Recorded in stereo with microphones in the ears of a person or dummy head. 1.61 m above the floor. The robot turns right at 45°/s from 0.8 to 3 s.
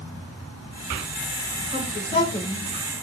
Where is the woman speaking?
45° left (ahead or behind), 5 m; by 2.9 s 10° right (ahead or behind), 5 m.